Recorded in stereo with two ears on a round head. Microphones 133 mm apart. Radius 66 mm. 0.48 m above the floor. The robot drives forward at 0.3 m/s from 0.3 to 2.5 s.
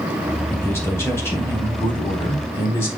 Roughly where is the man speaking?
Centre.